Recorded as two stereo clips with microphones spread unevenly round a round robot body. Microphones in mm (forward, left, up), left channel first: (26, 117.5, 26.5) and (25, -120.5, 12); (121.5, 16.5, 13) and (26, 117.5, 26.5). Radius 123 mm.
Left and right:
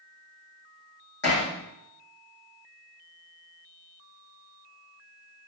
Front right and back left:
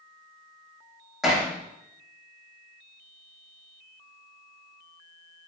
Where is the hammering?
45° left, 9 m.